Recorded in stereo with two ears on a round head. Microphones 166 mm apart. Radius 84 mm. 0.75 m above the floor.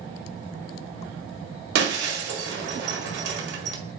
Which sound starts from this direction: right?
Breaking glass, at 1.8 s.